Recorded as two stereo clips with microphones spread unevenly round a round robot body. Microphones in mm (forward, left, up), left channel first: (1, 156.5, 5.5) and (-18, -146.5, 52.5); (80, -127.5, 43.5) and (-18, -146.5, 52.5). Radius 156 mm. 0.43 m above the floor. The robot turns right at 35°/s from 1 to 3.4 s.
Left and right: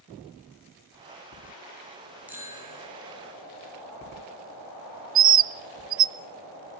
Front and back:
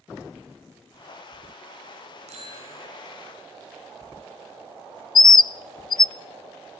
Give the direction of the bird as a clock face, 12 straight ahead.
1 o'clock.